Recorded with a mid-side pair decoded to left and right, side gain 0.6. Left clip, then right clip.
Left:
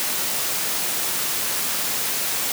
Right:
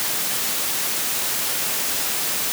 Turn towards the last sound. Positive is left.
No sound to turn to.